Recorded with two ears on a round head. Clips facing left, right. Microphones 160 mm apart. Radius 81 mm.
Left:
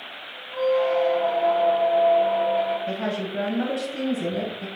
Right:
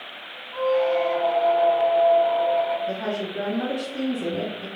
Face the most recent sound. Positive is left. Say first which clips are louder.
# even
turn(degrees=45)  # may be behind; listen again after turning